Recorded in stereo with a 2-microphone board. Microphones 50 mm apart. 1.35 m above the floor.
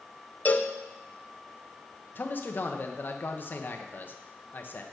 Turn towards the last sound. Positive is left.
turn(degrees=40)  # may be behind; listen again after turning